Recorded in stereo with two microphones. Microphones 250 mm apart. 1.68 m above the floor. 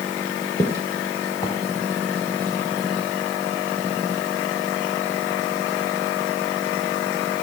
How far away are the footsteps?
About 2 m.